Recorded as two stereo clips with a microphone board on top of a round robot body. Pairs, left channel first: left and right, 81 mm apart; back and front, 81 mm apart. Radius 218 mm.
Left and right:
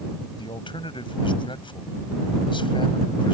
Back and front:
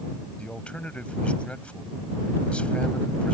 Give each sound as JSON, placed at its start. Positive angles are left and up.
{"t": 0.4, "sound": "a man speaking", "azimuth_deg": 105}